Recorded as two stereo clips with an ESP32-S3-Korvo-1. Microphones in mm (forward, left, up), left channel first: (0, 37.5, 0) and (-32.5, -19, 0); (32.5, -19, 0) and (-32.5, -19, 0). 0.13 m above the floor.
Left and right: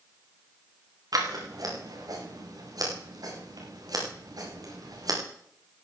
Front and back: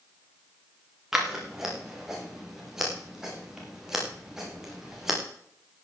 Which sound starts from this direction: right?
Scissors, at 1.1 s.